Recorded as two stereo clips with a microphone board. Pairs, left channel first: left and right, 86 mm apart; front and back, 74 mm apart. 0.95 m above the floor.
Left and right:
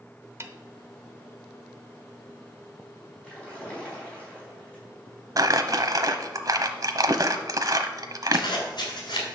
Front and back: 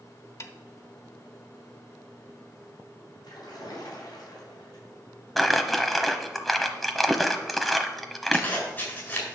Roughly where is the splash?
Ahead.